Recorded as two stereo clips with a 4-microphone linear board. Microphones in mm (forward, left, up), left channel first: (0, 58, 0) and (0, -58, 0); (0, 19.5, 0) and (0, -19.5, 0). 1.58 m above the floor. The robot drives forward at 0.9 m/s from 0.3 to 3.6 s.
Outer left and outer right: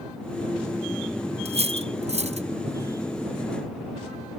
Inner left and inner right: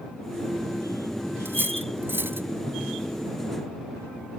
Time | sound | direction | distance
1.4 | cutlery clinking | 65° right (ahead or behind) | ?